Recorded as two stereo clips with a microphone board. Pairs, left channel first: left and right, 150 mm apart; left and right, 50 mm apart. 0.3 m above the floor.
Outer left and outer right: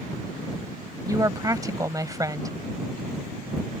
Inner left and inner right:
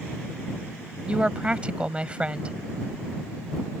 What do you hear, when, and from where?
1.1 s a woman speaking: 25° right (ahead or behind)